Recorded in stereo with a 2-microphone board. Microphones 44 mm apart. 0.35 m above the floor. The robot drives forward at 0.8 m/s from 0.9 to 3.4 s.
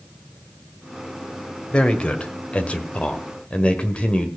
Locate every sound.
1.7 s a man speaking: 25° left (ahead or behind), 1.6 m; by 4.3 s 30° left (ahead or behind), 1.4 m